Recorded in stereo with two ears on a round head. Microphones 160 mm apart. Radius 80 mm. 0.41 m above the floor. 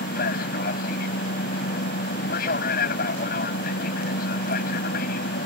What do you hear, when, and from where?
0.0 s an aircraft: 55° left (ahead or behind)